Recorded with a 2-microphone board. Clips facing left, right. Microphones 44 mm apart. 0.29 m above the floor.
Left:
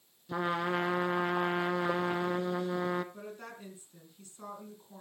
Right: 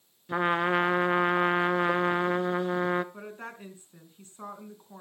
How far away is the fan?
No fan in this recording.